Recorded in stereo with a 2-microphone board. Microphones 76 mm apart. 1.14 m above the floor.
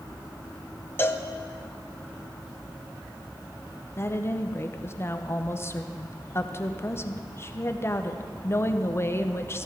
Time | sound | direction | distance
1.0 | a cowbell | 25° left (ahead or behind) | 0.6 m
4.0 | a woman speaking | 30° left (ahead or behind) | 0.6 m